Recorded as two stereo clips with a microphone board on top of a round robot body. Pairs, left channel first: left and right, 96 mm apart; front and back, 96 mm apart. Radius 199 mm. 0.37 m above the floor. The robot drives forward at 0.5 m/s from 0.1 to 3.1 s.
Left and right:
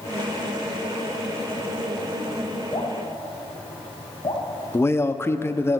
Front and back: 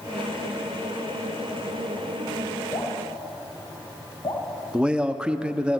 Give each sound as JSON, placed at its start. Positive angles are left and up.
{"t": 2.7, "sound": "dripping", "azimuth_deg": 45, "distance_m": 2.5}
{"t": 4.7, "sound": "a man speaking", "azimuth_deg": 110, "distance_m": 1.0}